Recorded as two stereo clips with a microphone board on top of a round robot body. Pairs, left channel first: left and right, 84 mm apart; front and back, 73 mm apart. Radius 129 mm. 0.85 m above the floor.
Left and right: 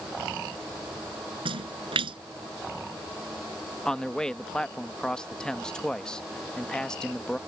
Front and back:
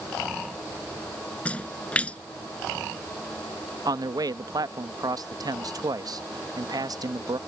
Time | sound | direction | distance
1.4 | a splash | 70° right | ?
3.9 | a man speaking | 170° left | ?